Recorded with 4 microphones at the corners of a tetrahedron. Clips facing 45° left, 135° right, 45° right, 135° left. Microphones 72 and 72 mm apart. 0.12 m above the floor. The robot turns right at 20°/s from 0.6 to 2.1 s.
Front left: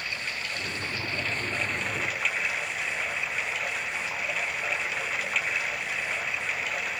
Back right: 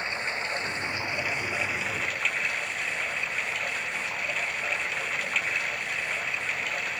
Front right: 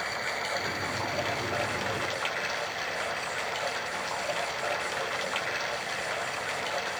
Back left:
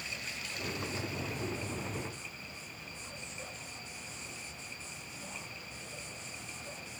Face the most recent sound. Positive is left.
turn(degrees=-45)